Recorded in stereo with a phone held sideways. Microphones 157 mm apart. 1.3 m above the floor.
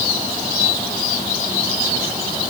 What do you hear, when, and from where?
Only background noise.